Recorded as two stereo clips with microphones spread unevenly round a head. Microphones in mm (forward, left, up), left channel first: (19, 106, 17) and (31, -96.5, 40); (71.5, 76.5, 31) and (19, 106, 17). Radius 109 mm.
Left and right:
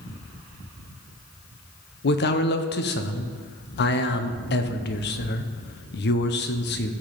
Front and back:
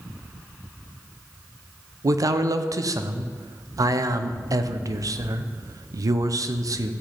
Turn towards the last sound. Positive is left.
turn(degrees=135)